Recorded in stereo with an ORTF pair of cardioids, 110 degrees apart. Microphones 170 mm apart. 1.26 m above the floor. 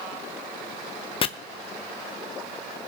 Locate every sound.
1.2 s chopping: 30° left, 0.7 m